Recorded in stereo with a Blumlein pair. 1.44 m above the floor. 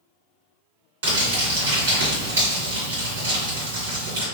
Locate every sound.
1.0 s crumpling: 60° right, 1.8 m